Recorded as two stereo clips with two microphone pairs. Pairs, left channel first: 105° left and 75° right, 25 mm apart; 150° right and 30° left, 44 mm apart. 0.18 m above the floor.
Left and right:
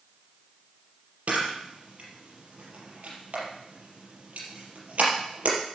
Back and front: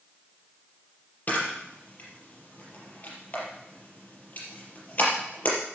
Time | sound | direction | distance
1.3 | a camera shutter | 100° right | 5 m